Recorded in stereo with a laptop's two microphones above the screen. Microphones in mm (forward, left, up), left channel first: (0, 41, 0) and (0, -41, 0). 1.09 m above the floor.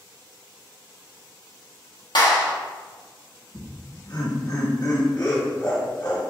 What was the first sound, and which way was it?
A clap, 65° left (ahead or behind).